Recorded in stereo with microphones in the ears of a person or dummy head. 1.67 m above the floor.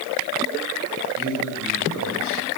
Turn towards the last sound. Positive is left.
turn(degrees=-75)  # may be behind; listen again after turning